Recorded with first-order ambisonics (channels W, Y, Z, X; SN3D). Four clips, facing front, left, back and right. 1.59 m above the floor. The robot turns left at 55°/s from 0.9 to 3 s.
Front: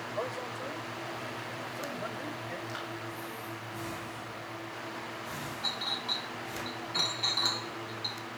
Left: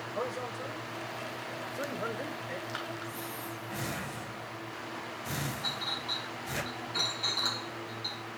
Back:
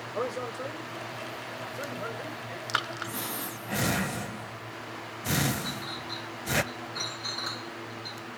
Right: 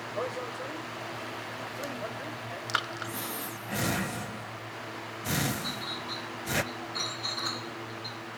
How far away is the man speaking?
About 8 m.